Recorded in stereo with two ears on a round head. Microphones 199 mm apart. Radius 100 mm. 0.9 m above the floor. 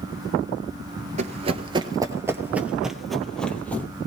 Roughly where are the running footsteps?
Right.